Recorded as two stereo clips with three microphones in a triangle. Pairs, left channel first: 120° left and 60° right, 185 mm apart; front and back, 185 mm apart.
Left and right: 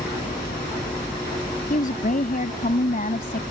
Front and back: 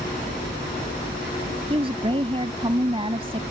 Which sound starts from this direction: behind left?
A woman speaking, at 1.7 s.